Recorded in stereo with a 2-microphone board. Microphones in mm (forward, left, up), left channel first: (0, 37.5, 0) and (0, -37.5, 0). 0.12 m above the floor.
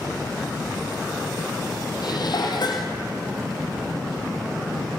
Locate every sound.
2.0 s dishes clattering: 65° left (ahead or behind), 2.5 m